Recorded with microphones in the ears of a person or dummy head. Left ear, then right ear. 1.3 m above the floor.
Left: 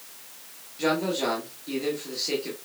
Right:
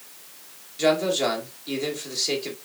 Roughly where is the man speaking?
Centre.